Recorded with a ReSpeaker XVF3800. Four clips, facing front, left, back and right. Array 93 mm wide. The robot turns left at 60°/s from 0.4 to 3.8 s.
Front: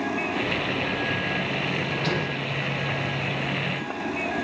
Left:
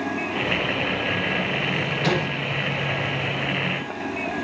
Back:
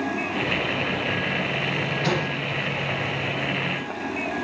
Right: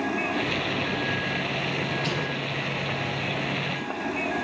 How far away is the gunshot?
About 6 m.